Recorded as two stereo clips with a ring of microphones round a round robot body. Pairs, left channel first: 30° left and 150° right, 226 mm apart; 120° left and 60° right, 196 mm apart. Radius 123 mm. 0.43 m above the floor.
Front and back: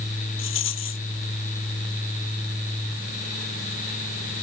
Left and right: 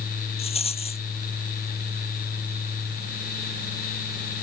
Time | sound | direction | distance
0.4 | a rattle | 60° left | ?